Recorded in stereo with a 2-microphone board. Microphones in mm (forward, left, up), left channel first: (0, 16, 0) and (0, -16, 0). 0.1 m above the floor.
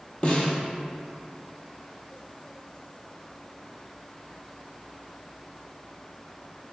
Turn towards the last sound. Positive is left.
turn(degrees=40)  # may be behind; listen again after turning